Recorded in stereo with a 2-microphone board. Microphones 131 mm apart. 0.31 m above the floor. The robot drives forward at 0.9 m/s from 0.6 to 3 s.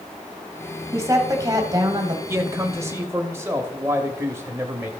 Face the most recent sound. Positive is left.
turn(degrees=-20)  # may be behind; listen again after turning